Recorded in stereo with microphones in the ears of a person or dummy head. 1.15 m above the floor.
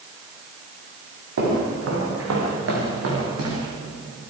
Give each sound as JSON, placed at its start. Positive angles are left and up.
{"t": 1.4, "sound": "footsteps", "side_deg": -70, "distance_m": 9.5}